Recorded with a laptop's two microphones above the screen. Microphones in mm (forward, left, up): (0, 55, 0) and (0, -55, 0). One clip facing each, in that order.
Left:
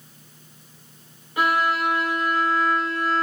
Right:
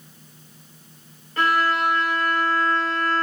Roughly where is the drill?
I don't hear a drill.